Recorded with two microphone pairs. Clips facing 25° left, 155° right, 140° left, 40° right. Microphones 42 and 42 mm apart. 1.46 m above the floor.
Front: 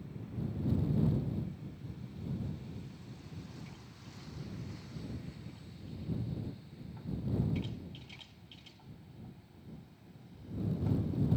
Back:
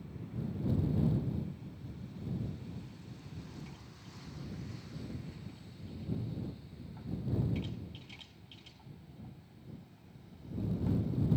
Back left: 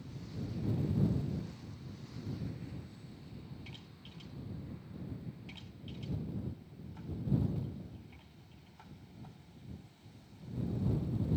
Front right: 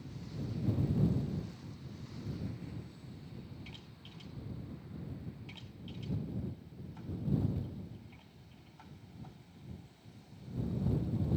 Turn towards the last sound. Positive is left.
No sound to turn to.